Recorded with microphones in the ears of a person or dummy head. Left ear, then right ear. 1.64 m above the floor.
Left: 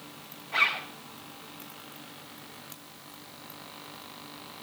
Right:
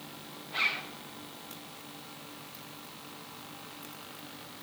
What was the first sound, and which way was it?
A zipper, 25° left (ahead or behind).